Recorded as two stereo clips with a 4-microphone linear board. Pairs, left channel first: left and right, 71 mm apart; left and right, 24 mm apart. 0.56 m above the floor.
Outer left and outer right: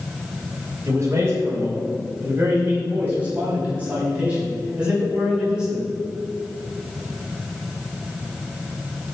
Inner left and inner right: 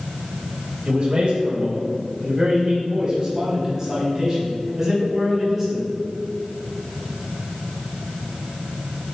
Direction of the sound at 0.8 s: 40° right (ahead or behind).